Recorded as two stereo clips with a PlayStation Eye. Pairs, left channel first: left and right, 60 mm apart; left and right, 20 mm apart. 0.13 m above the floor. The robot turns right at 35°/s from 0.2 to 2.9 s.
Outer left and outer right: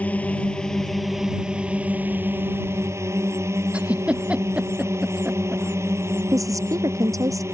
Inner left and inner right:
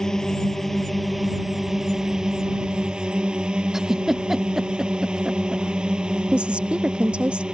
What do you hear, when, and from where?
0.0 s a drone: 25° left (ahead or behind); by 7.5 s 50° right (ahead or behind)
3.7 s a giggle: 20° right (ahead or behind)
6.3 s a woman speaking: 75° right (ahead or behind)